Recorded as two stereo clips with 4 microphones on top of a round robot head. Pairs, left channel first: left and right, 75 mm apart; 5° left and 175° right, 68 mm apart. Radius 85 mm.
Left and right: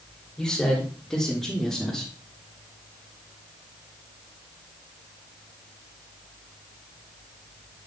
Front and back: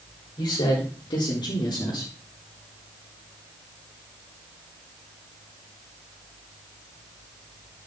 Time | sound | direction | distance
0.4 | a man speaking | 5° left | 4.5 m